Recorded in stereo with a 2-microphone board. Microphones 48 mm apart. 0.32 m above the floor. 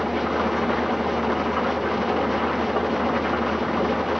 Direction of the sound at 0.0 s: Centre (ahead or behind).